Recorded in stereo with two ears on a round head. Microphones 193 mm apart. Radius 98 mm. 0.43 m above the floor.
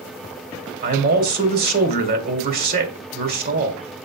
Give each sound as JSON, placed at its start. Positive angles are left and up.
{"t": 0.8, "sound": "a man speaking", "side_deg": -45, "distance_m": 1.6}